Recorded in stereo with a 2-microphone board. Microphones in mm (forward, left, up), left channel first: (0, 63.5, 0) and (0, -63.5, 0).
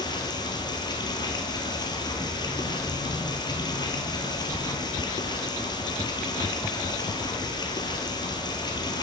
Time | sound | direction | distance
0.0 | running water | 35° left (ahead or behind) | 0.9 m